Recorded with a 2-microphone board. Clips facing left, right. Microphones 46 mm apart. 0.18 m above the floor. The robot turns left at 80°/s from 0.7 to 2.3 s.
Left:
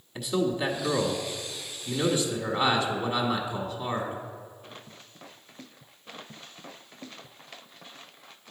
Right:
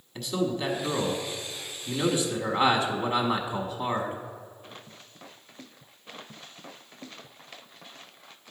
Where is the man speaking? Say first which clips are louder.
Left 2 dB; 10° left (ahead or behind), 1.0 m; by 4.2 s 20° right (ahead or behind), 1.0 m.